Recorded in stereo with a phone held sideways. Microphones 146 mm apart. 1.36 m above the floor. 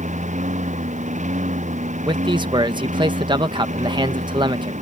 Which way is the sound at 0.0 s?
60° right (ahead or behind).